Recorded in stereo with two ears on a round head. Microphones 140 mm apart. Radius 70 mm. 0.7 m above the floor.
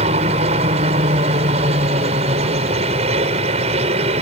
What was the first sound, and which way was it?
A helicopter, 40° right (ahead or behind).